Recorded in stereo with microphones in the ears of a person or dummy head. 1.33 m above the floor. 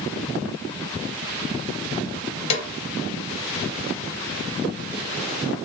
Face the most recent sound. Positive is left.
turn(degrees=40)  # may be behind; listen again after turning